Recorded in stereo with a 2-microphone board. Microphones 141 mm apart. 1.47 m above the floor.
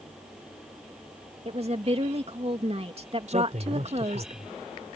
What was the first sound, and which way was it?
A woman speaking, 45° right (ahead or behind).